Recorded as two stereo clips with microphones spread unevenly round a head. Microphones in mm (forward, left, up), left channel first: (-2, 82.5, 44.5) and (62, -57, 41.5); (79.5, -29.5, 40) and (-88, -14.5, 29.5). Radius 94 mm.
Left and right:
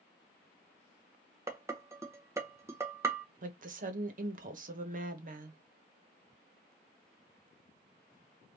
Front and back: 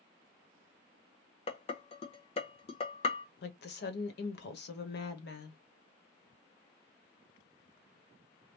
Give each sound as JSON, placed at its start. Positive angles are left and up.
{"t": 1.5, "sound": "dishes clattering", "azimuth_deg": -5, "distance_m": 0.8}
{"t": 3.4, "sound": "a woman speaking", "azimuth_deg": -30, "distance_m": 1.4}